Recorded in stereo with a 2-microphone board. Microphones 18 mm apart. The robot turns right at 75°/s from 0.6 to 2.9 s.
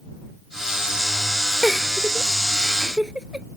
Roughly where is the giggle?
Centre.